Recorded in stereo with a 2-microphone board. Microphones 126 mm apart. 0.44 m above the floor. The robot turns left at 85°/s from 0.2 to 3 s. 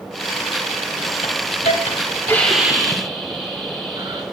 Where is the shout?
I don't hear a shout.